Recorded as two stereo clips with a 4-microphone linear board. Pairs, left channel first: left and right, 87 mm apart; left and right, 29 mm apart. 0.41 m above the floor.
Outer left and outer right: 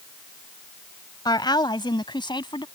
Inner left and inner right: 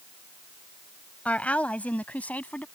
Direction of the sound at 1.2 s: 60° left (ahead or behind).